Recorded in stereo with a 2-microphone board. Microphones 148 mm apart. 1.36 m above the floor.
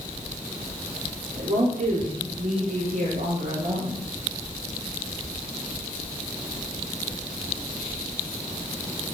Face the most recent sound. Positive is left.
turn(degrees=-60)  # may be behind; listen again after turning